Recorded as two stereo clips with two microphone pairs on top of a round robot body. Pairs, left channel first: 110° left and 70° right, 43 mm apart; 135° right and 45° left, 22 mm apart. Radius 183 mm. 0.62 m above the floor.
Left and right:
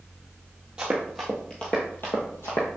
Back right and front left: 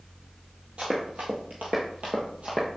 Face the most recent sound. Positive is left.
turn(degrees=90)